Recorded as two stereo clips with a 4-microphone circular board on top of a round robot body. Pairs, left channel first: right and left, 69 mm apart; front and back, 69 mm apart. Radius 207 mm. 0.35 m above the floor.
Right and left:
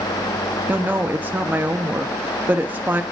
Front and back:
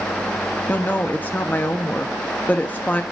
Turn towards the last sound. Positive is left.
turn(degrees=45)